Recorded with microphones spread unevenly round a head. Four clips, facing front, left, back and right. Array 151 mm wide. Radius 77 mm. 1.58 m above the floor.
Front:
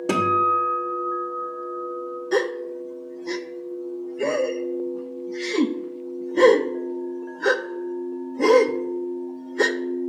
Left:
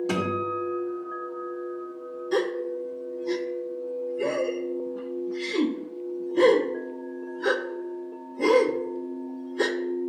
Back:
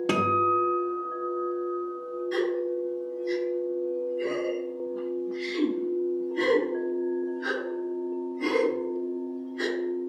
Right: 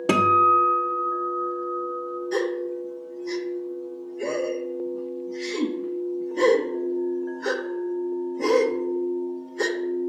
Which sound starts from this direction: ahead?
A gasp, at 2.3 s.